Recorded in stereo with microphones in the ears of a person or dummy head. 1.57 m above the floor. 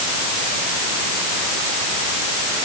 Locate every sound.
Only background noise.